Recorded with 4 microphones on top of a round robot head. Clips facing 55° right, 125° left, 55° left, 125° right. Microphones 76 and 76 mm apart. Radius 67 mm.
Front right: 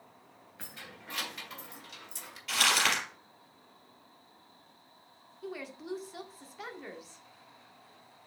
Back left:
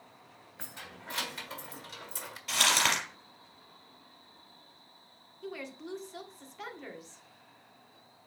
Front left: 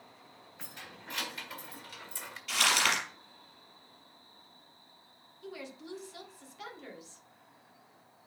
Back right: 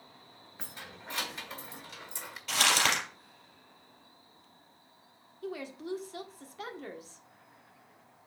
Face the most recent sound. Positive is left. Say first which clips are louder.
# front right 1 dB, back right 6 dB
turn(degrees=-140)